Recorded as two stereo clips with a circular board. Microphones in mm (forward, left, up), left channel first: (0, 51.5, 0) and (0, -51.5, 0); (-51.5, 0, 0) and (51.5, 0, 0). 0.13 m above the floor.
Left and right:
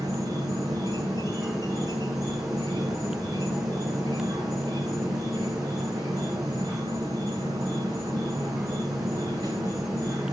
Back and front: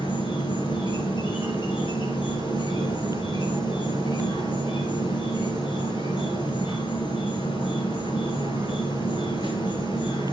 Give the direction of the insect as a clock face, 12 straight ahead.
5 o'clock.